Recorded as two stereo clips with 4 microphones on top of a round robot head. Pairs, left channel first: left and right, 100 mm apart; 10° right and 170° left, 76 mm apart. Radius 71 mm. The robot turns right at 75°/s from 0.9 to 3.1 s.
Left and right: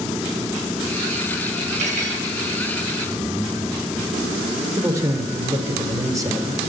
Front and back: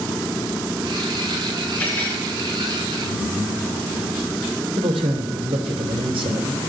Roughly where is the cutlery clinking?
Right.